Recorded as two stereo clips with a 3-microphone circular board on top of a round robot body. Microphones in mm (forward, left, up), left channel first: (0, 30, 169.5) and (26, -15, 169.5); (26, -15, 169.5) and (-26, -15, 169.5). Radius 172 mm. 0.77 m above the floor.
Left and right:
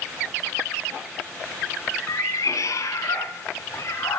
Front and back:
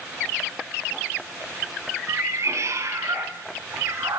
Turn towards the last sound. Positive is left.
turn(degrees=155)